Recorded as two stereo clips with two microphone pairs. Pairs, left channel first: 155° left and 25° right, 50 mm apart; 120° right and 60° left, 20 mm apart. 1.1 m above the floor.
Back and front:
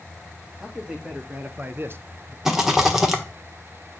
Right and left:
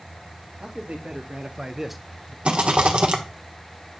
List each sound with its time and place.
0.6 s a man speaking: 50° left, 2.0 m; by 2.4 s 70° right, 0.9 m
2.5 s a rattle: 55° left, 1.3 m